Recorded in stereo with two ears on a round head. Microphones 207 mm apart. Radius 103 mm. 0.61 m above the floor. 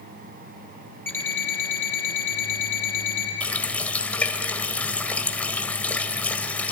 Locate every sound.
1.1 s an alarm clock: 10° left (ahead or behind), 7.5 m
3.4 s a running tap: 5° left (ahead or behind), 1.7 m